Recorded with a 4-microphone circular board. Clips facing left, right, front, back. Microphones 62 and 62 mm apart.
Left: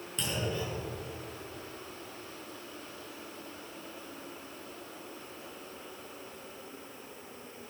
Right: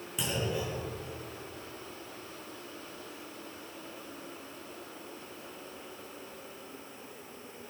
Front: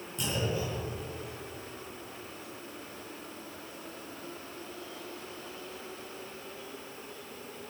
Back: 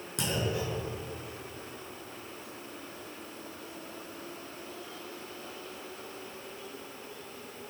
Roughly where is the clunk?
Behind.